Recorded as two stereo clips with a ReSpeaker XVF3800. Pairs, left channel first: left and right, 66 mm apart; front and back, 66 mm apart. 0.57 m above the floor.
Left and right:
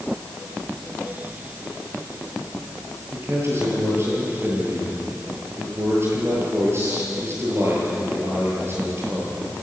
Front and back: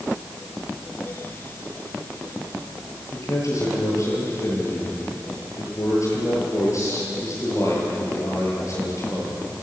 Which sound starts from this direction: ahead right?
A man speaking, at 3.1 s.